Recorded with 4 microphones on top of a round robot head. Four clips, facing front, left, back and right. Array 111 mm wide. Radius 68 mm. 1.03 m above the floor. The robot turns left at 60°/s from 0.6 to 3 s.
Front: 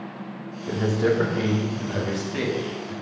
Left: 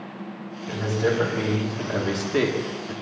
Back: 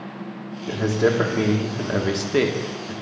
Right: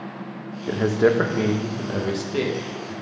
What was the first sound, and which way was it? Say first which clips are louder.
A man speaking: right 5 dB, back 2 dB; 90° right.